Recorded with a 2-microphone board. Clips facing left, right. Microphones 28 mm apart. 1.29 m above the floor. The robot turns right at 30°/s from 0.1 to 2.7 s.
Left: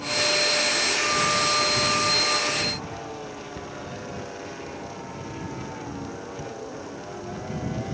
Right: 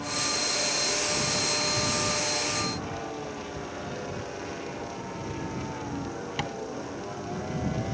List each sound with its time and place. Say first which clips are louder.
3.5 s a cupboard door: even; 50° left (ahead or behind)
6.4 s tapping: right 3 dB; 80° right